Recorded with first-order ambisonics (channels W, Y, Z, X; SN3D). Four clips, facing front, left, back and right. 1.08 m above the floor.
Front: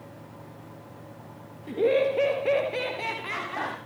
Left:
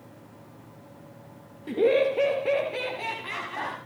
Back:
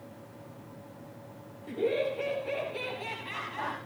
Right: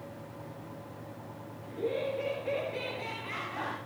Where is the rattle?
No rattle in this recording.